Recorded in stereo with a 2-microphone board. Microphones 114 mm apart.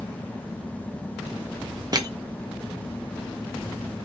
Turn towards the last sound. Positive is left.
turn(degrees=-35)  # may be behind; listen again after turning